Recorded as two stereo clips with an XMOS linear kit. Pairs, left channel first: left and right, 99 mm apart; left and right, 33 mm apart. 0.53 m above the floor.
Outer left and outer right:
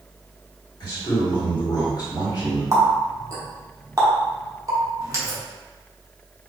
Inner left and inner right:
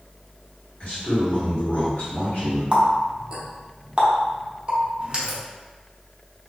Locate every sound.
0.8 s a man speaking: 50° left (ahead or behind), 2.0 m
2.7 s a running tap: 35° right (ahead or behind), 0.8 m